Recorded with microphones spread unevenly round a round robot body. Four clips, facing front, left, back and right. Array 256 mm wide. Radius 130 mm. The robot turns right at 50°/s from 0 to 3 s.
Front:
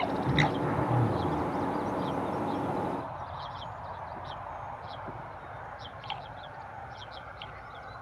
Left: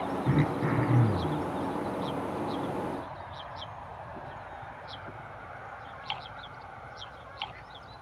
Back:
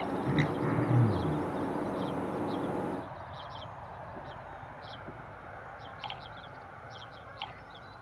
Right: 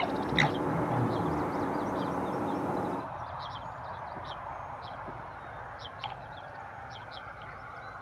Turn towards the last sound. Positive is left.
turn(degrees=-140)